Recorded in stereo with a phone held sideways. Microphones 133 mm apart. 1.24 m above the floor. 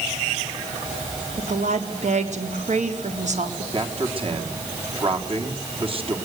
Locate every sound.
1.4 s a woman speaking: 65° right (ahead or behind), 3.5 m
3.7 s a man speaking: 45° right (ahead or behind), 3.5 m